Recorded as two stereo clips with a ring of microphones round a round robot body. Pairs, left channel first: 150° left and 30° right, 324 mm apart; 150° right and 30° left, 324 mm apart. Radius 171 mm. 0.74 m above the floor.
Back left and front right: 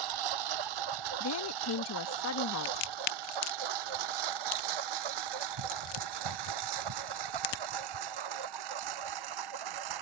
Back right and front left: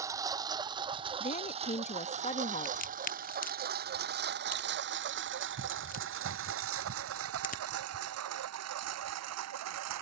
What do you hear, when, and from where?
0.0 s a lawn mower: 50° right; by 10.0 s 10° right
1.2 s a woman speaking: 150° left
2.6 s a crack: 145° left